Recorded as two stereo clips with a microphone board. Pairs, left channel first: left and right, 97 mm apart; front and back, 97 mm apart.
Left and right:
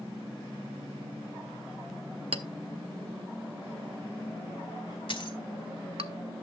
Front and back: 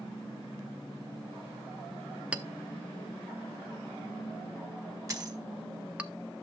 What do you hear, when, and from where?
2.3 s a clink: 105° right, 0.6 m
5.1 s a dropped coin: 125° left, 1.4 m